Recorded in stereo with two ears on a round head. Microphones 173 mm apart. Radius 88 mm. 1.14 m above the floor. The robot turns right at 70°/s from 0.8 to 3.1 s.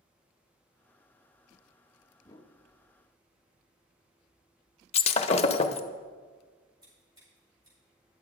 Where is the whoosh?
15° left (ahead or behind), 0.7 m; by 2.5 s 25° left (ahead or behind), 0.7 m.